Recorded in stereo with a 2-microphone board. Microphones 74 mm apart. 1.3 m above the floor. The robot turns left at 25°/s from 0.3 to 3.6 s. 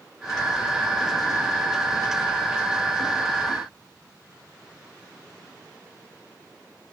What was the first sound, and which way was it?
Only background noise.